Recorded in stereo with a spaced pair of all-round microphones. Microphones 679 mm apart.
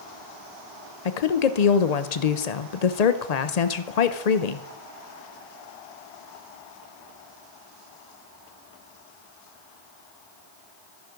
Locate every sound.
1.1 s a woman speaking: 70° left (ahead or behind), 0.7 m